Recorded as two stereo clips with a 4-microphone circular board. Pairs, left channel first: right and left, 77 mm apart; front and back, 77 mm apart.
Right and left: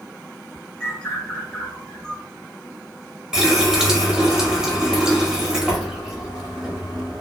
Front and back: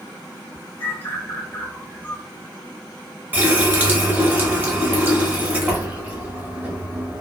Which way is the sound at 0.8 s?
30° right.